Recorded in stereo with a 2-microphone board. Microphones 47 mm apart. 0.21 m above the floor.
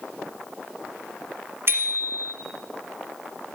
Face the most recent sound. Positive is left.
turn(degrees=-55)  # may be behind; listen again after turning